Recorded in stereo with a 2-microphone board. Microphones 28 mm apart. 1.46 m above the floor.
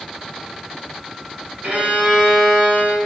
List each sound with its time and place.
1.6 s a violin: 65° right (ahead or behind), 5 m